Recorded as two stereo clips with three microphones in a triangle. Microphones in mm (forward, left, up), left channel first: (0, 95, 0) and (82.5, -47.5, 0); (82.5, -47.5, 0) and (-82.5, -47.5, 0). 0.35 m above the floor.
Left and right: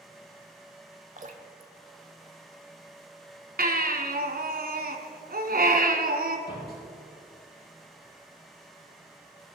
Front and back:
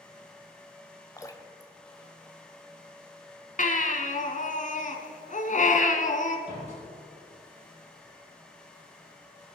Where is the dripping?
65° right, 1.2 m.